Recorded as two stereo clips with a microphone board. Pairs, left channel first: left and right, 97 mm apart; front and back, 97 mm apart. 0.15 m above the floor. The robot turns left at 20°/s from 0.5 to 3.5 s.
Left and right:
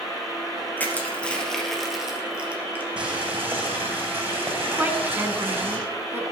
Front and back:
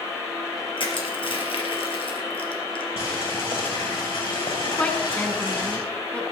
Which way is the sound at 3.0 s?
15° right.